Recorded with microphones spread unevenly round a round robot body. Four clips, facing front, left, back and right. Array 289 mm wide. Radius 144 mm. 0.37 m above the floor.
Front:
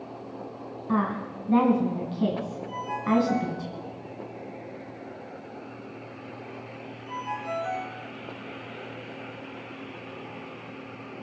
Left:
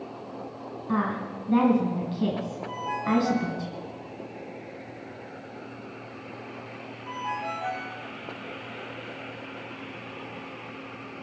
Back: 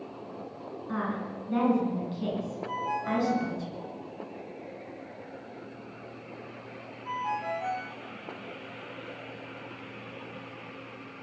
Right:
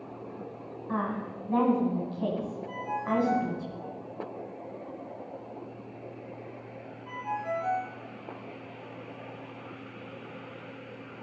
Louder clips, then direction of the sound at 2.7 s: Left 4 dB, front 4 dB; 150° left.